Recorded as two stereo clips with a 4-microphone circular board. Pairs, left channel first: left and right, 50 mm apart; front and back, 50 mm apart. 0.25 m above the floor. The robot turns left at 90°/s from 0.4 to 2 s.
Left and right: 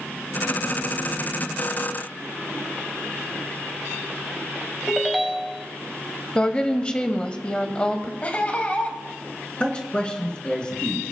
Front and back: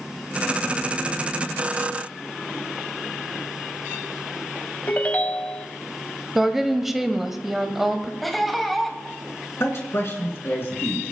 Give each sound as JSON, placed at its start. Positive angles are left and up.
{"t": 4.9, "sound": "a ringtone", "azimuth_deg": 0, "distance_m": 0.7}
{"t": 6.3, "sound": "a woman speaking", "azimuth_deg": 105, "distance_m": 0.9}
{"t": 8.2, "sound": "laughter", "azimuth_deg": 90, "distance_m": 1.5}
{"t": 9.6, "sound": "a man speaking", "azimuth_deg": 25, "distance_m": 2.5}